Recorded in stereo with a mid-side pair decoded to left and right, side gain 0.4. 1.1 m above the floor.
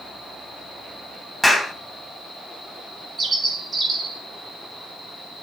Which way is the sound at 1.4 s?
5° left.